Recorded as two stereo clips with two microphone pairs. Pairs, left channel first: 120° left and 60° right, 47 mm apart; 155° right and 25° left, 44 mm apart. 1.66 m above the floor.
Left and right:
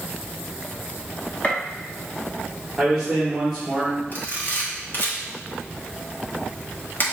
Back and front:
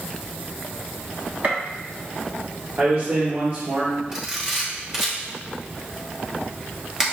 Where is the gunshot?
65° left, 1.2 m.